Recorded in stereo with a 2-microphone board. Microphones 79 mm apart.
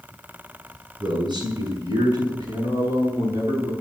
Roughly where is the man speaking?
Right.